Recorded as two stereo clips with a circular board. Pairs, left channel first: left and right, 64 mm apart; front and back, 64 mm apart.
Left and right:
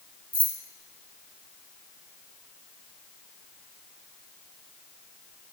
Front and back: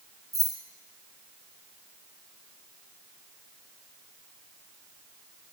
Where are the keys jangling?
155° right, 1.1 m.